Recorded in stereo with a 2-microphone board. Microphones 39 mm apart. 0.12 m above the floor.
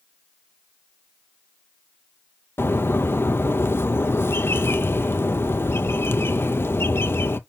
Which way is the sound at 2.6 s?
75° left (ahead or behind).